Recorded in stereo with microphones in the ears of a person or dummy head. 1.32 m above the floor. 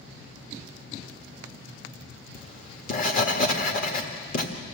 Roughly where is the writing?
Left.